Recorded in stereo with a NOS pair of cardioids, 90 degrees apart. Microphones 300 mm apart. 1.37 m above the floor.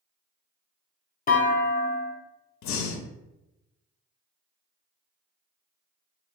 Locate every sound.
1.3 s a clunk: 30° left, 0.7 m
2.6 s breathing: 70° left, 0.5 m